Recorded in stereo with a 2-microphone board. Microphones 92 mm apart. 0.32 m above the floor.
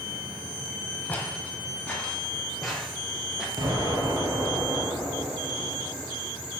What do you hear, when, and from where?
1.1 s footsteps: 15° left (ahead or behind), 6.5 m; by 3.5 s 5° right (ahead or behind), 5 m
3.6 s an explosion: 50° right (ahead or behind), 4 m